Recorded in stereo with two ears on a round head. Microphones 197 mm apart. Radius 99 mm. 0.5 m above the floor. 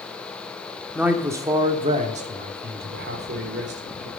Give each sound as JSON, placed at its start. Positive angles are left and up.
{"t": 0.9, "sound": "a man speaking", "side_deg": -5, "distance_m": 1.1}